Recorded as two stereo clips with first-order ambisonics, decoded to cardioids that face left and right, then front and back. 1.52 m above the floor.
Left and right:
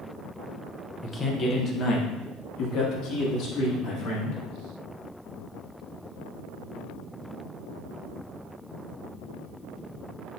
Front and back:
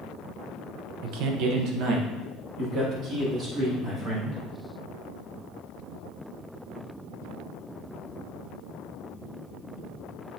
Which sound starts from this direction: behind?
A man speaking, at 1.0 s.